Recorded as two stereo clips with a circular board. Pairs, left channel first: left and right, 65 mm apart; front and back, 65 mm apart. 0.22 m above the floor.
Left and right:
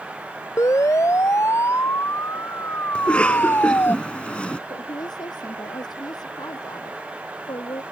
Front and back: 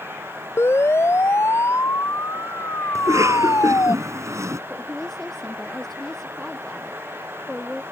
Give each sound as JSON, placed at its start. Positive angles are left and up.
{"t": 0.6, "sound": "a siren", "azimuth_deg": 50}
{"t": 3.0, "sound": "a cough", "azimuth_deg": 160}
{"t": 4.7, "sound": "a woman speaking", "azimuth_deg": 85}